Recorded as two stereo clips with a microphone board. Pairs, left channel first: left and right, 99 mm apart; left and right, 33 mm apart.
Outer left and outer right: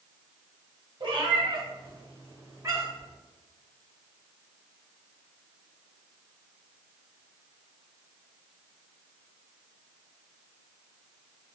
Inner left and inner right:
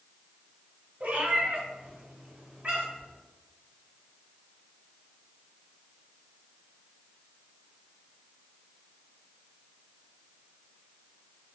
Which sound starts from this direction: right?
A cat meowing, at 1.0 s.